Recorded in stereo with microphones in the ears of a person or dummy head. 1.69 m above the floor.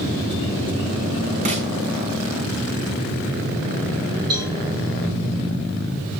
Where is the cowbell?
25° right (ahead or behind), 4 m.